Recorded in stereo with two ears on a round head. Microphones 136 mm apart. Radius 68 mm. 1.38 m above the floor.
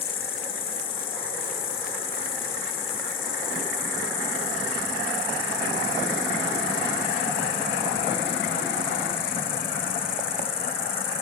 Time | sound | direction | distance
0.0 | an insect | 40° left (ahead or behind) | ?